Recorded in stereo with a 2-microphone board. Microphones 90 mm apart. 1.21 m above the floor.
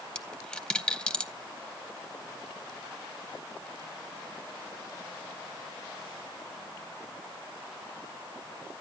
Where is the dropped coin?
10° left (ahead or behind), 0.6 m.